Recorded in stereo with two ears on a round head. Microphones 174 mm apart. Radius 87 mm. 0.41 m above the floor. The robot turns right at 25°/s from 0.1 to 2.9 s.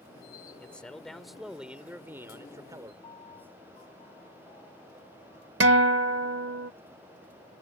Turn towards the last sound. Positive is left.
turn(degrees=-65)  # may be behind; listen again after turning